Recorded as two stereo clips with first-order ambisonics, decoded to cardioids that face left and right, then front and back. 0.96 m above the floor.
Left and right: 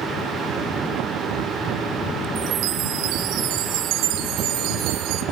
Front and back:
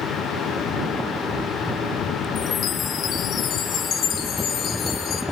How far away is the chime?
About 3.5 m.